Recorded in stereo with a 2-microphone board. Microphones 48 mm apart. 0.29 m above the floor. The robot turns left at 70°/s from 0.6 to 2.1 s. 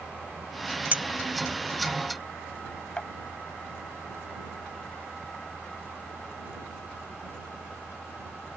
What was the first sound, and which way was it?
A clink, 35° right (ahead or behind).